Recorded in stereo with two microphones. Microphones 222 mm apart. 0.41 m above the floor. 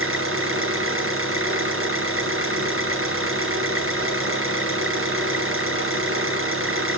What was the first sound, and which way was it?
An engine running, 80° right.